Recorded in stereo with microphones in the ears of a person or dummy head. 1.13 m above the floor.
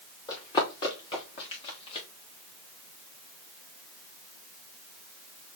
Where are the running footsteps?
25° left (ahead or behind), 4.5 m; by 2.1 s 40° left (ahead or behind), 4 m.